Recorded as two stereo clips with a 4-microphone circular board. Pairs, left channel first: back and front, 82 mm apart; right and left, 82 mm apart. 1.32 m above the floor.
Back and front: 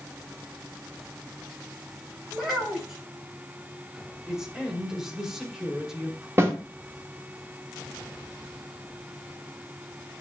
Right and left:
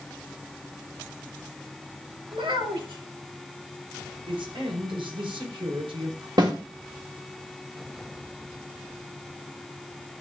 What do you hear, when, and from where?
2.3 s a child speaking: 85° left, 6.5 m
4.3 s a man speaking: 85° left, 4.5 m
6.4 s a snare drum: 60° left, 3 m